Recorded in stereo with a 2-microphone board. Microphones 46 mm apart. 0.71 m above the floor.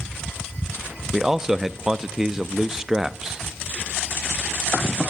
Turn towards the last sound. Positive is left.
turn(degrees=-10)  # may be behind; listen again after turning